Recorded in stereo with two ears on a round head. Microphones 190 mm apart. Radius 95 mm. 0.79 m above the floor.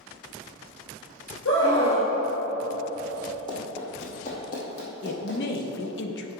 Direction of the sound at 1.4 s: 65° left (ahead or behind).